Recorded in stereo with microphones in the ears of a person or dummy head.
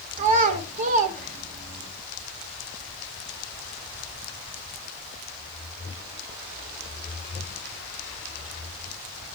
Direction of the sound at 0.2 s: 40° right (ahead or behind).